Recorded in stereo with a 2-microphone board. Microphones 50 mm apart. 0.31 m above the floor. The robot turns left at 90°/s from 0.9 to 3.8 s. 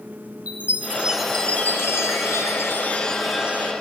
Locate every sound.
0.5 s a chime: 150° right, 0.8 m; by 3.7 s 40° right, 0.8 m